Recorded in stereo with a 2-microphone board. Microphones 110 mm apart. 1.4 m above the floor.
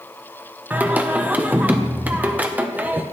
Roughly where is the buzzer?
I don't hear a buzzer.